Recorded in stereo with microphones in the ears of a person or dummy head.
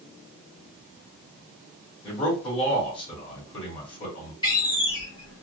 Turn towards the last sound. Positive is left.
turn(degrees=25)  # may be behind; listen again after turning